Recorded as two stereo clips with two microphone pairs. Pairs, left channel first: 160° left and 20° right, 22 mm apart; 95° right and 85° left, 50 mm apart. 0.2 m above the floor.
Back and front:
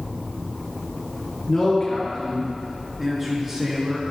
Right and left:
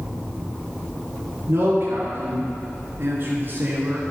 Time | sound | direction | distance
1.5 | a man speaking | 100° left | 3.5 m